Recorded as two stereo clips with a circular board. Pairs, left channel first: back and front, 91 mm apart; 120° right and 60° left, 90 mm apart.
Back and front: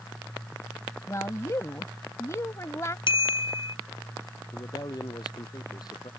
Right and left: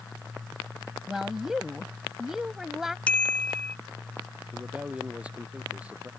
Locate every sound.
1.1 s a woman speaking: 145° left
3.1 s a bicycle bell: 165° left
4.5 s a man speaking: 135° left